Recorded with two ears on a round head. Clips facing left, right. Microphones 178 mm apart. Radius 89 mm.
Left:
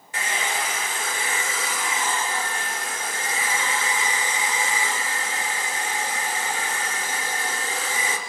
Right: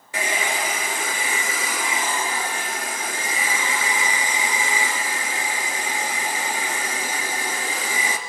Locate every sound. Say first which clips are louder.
0.1 s a hair dryer: right 3 dB; 70° right (ahead or behind), 3 m